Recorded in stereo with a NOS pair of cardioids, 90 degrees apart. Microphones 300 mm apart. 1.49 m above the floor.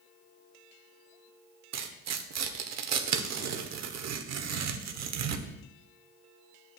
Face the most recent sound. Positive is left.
turn(degrees=-60)